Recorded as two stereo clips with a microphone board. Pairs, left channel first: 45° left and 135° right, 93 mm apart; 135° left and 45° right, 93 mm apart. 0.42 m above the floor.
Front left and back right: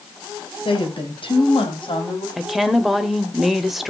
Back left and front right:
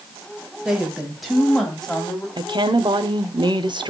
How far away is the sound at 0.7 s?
About 3 m.